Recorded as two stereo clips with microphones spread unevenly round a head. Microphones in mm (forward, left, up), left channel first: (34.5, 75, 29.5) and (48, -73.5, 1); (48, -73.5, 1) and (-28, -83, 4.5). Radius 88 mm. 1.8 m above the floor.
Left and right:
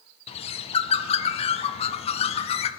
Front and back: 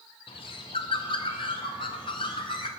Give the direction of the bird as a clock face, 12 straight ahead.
10 o'clock.